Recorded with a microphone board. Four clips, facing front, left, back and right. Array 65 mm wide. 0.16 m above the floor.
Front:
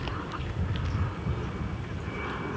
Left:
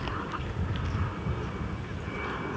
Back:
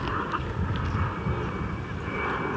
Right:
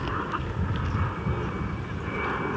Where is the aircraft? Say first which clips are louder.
Right 5 dB, back 6 dB; 150° right; by 2.6 s 135° right.